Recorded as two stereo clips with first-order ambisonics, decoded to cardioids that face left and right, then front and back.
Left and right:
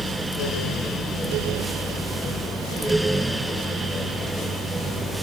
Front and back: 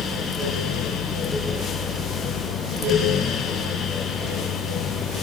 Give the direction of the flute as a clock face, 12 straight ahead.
No flute in this recording.